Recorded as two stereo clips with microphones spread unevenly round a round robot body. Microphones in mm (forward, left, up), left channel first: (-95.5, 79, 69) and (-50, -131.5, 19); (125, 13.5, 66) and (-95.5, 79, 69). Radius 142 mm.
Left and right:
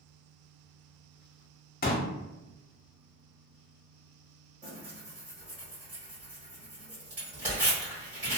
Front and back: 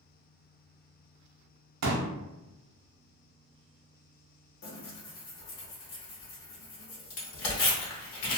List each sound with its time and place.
1.8 s a pop: 155° left, 0.7 m
4.6 s tearing paper: 15° left, 1.0 m